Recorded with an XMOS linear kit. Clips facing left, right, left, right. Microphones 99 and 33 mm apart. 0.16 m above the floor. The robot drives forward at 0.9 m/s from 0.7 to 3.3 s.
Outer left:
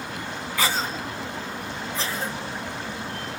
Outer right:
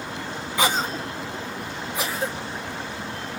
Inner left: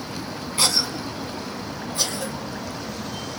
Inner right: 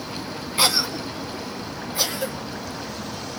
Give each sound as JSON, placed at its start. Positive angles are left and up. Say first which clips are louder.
{"t": 0.6, "sound": "a cough", "louder": "outer right 3 dB, inner right 2 dB", "side_deg": -20, "distance_m": 1.5}